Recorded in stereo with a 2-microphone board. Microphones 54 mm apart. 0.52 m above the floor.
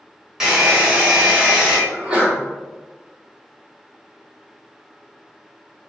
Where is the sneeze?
25° right (ahead or behind), 1.4 m.